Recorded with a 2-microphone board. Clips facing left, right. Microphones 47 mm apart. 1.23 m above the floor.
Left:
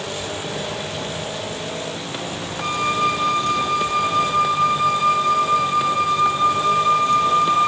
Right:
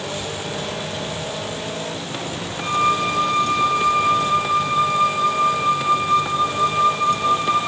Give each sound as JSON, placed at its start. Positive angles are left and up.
{"t": 2.6, "sound": "a flute", "side_deg": -30, "distance_m": 1.7}